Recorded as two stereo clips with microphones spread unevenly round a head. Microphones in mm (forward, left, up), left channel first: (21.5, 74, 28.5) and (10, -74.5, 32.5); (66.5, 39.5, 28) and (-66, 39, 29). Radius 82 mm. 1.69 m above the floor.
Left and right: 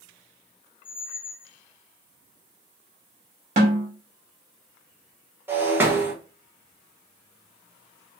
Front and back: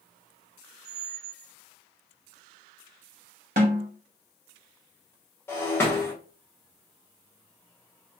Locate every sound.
0.8 s a squeak: 70° left, 1.5 m
3.6 s a snare drum: 140° right, 1.1 m
5.5 s breaking glass: 45° right, 0.9 m